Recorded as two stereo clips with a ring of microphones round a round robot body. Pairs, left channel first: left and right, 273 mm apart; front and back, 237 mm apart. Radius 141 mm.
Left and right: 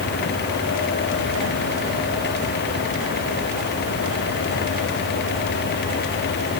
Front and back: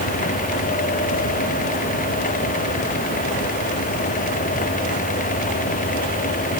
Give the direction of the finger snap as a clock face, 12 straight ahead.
No finger snap in this recording.